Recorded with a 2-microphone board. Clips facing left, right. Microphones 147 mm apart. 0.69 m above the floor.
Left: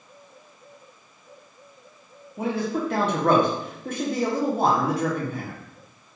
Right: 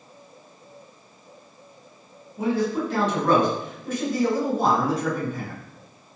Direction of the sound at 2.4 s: 60° left (ahead or behind).